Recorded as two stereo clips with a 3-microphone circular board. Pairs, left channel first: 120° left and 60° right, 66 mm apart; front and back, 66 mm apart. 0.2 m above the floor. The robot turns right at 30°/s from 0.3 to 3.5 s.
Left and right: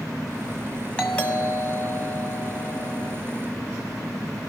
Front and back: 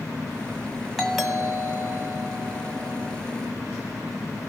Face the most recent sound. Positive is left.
turn(degrees=170)